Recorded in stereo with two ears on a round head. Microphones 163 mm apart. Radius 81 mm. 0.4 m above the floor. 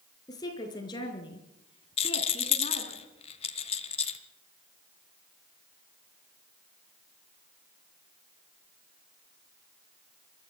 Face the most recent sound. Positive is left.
turn(degrees=35)  # may be behind; listen again after turning